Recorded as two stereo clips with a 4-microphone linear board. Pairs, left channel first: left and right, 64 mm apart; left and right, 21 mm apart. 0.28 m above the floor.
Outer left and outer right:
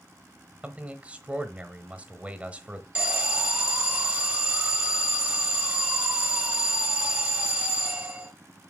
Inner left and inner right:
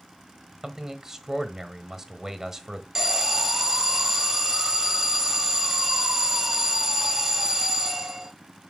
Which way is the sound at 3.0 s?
20° right (ahead or behind).